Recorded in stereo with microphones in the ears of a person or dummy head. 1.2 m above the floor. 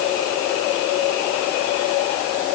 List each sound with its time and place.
Only background noise.